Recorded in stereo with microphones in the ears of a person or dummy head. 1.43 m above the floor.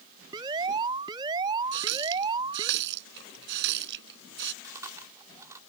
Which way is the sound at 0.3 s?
20° right (ahead or behind).